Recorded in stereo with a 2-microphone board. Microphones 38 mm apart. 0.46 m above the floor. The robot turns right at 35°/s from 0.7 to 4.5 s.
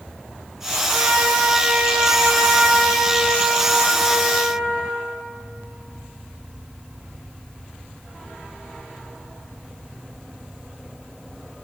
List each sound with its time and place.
0.9 s a trumpet: 105° right, 3 m; by 4.9 s 20° left, 3 m